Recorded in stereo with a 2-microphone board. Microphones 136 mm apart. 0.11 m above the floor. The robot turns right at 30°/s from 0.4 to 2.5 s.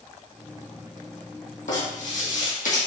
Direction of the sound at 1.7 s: 65° left (ahead or behind).